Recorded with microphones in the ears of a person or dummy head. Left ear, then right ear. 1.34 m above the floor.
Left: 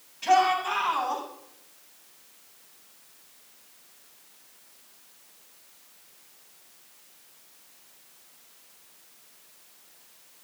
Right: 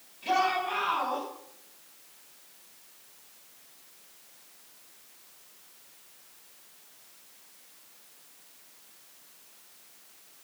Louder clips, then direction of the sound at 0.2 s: Left 5 dB; 65° left (ahead or behind).